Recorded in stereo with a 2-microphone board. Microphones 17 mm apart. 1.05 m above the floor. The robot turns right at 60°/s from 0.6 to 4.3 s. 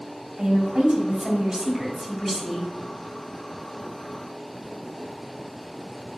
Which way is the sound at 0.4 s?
95° right.